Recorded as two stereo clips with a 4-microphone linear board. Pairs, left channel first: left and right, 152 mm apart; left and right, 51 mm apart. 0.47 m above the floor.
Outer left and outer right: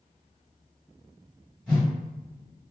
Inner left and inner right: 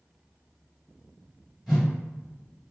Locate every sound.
1.7 s a whoosh: 5° left (ahead or behind), 1.6 m